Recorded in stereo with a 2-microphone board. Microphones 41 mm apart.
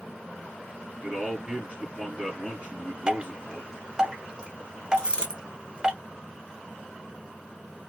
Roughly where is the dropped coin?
Right.